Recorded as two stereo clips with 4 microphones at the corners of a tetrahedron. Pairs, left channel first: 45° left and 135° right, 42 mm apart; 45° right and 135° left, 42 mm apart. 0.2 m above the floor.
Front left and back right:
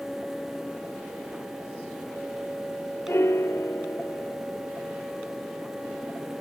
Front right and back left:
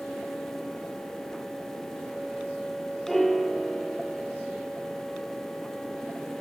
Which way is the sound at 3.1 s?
40° left.